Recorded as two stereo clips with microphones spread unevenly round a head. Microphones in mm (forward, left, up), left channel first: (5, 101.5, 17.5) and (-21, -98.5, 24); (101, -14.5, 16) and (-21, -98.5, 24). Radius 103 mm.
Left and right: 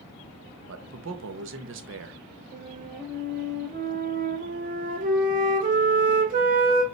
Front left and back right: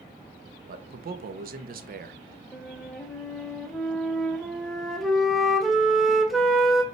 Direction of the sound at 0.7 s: 125° right.